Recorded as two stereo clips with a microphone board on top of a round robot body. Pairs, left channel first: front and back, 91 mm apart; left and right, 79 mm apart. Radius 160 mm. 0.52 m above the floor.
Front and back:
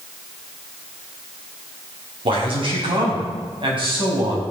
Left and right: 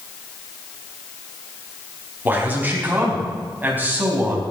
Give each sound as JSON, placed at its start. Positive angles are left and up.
{"t": 2.2, "sound": "a man speaking", "azimuth_deg": -155, "distance_m": 4.5}